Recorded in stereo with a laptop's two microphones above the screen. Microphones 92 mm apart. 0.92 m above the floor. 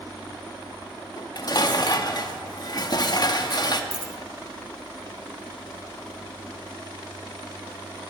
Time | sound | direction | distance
1.2 | dishes clattering | 45° left (ahead or behind) | 1.0 m
3.9 | a dropped coin | 45° right (ahead or behind) | 1.2 m